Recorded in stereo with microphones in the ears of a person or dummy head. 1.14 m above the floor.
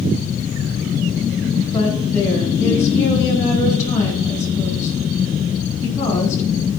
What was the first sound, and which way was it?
A woman speaking, 15° left (ahead or behind).